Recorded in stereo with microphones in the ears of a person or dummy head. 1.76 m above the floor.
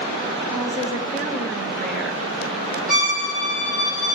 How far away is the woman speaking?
About 1.4 m.